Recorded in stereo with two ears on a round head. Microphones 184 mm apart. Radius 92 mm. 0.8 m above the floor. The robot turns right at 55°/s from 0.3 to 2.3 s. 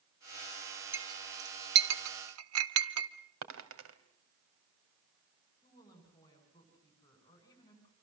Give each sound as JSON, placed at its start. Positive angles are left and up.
{"t": 0.9, "sound": "a clink", "side_deg": -10, "distance_m": 1.3}
{"t": 3.4, "sound": "a dropped coin", "side_deg": -75, "distance_m": 2.5}
{"t": 5.6, "sound": "a woman speaking", "side_deg": 20, "distance_m": 8.5}